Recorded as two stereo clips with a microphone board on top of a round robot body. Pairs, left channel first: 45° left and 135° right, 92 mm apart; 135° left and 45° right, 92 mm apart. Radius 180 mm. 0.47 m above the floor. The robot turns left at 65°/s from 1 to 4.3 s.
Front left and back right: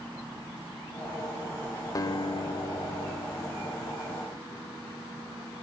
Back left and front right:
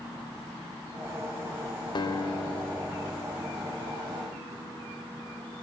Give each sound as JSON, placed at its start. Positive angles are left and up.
{"t": 1.9, "sound": "a guitar", "azimuth_deg": 100, "distance_m": 1.0}